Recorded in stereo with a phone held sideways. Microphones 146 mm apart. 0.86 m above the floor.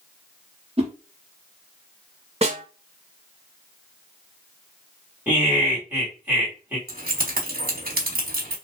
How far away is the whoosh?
About 0.9 m.